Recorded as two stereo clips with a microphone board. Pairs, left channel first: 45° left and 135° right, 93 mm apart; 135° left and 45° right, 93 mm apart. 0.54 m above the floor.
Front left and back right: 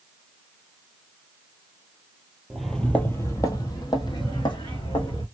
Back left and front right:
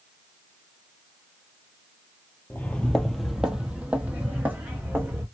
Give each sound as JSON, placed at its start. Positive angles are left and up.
{"t": 2.5, "sound": "footsteps", "azimuth_deg": 150, "distance_m": 0.5}